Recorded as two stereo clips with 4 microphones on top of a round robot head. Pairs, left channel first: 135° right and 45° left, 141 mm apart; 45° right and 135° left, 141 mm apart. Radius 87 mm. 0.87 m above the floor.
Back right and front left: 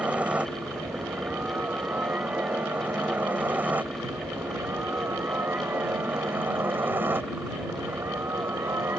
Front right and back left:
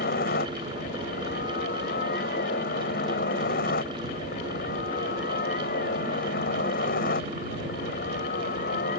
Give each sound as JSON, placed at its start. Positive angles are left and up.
{"t": 0.0, "sound": "a helicopter", "azimuth_deg": -35}